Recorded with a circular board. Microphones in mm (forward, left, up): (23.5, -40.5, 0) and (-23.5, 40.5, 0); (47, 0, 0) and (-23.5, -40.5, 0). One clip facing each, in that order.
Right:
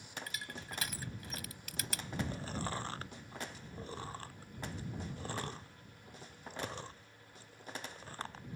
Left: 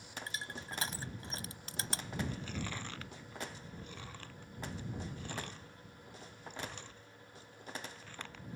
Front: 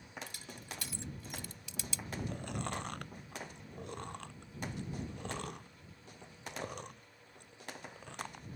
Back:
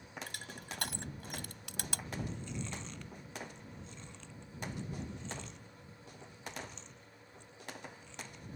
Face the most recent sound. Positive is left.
turn(degrees=-5)